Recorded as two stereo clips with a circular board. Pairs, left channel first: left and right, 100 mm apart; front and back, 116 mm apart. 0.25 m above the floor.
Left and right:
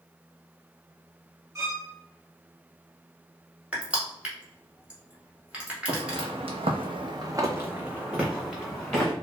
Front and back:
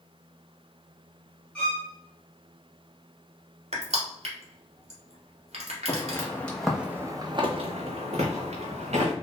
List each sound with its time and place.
1.6 s a violin: 75° right, 1.0 m
3.7 s crushing: 165° right, 0.9 m
5.9 s footsteps: 60° right, 0.8 m; by 9.1 s 175° left, 1.2 m